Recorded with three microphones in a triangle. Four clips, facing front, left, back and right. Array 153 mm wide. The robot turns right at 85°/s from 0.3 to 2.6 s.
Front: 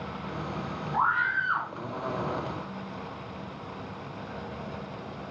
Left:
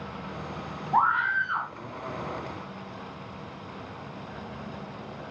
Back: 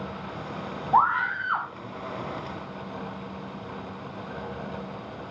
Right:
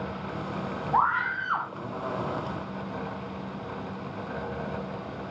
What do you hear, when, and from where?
0.9 s a scream: 175° left, 8 m; by 1.7 s 125° right, 8 m